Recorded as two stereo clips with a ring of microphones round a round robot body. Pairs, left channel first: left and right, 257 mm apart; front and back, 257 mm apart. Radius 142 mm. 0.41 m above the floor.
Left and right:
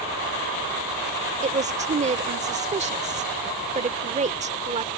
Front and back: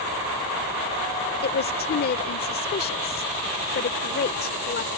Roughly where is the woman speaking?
Ahead right.